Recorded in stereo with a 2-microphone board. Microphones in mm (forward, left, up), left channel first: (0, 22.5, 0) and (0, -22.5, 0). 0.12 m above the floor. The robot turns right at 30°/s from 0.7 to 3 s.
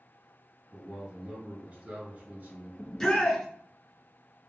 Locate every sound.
0.7 s a man speaking: 150° right, 2 m; by 2.7 s 90° right, 2 m
2.8 s a shout: 10° left (ahead or behind), 1.1 m